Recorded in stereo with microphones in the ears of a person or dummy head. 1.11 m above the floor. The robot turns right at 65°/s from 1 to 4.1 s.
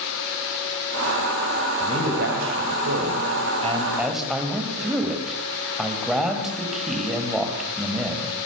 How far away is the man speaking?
About 5.5 m.